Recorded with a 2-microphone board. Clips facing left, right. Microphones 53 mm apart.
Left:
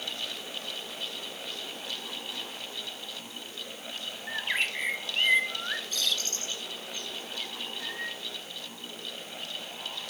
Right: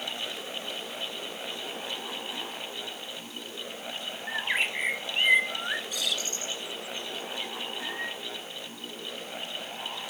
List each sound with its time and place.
4.3 s a bird: 10° right (ahead or behind), 0.9 m